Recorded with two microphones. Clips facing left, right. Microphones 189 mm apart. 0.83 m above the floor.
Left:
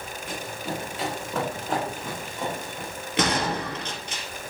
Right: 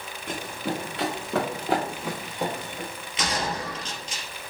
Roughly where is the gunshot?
Left.